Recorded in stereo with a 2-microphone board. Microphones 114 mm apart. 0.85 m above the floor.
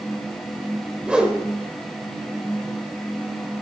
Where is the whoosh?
10° right (ahead or behind), 2 m.